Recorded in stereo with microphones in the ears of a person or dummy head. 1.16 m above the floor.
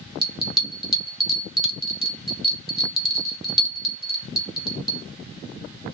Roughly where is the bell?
Centre.